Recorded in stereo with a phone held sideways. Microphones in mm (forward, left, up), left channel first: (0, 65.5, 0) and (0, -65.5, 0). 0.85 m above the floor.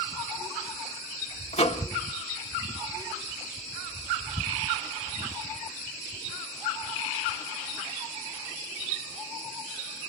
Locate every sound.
1.5 s a microwave: 55° left (ahead or behind), 1.5 m